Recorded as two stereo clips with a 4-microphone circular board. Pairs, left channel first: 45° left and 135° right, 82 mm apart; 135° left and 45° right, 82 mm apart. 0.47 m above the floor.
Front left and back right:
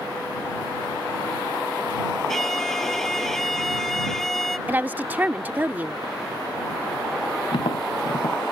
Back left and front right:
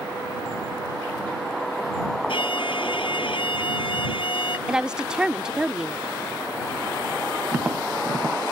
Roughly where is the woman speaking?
Right.